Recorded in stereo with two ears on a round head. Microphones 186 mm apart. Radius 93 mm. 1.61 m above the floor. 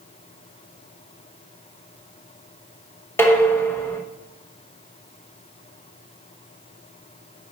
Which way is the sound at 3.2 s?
10° left (ahead or behind).